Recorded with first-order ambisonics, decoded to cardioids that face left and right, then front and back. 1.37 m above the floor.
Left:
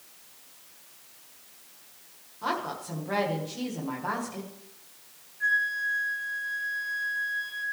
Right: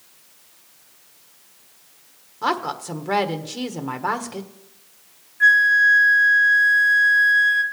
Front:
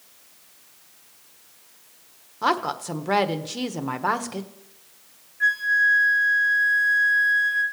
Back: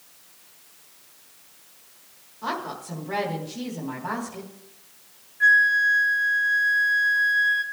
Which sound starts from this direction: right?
A flute, at 5.4 s.